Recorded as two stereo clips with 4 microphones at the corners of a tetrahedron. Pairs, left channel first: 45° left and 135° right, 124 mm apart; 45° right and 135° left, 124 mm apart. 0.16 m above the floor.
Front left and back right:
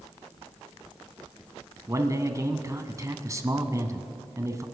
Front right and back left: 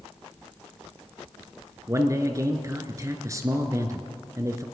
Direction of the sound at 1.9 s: Straight behind.